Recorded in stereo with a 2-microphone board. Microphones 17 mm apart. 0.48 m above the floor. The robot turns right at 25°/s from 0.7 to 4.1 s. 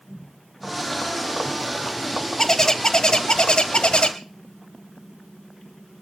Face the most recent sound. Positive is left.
turn(degrees=65)